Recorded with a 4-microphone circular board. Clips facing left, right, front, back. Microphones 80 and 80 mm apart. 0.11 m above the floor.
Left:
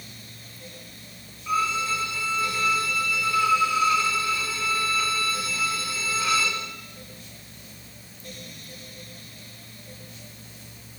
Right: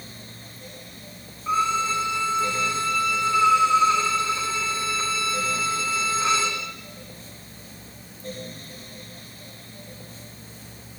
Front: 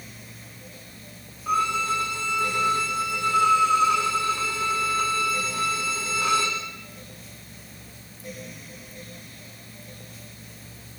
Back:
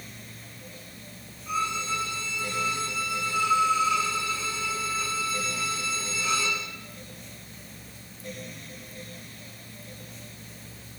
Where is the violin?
25° right, 5.5 m.